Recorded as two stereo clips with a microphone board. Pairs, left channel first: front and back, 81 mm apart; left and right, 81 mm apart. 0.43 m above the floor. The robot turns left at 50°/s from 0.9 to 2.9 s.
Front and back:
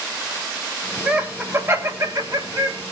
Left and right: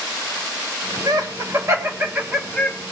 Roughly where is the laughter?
Right.